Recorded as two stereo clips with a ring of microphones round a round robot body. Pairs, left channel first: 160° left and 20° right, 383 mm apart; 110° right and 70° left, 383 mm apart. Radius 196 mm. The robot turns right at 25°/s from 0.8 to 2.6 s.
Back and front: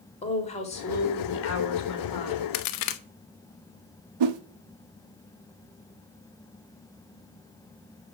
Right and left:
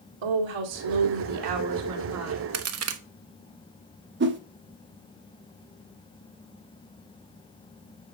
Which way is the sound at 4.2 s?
5° left.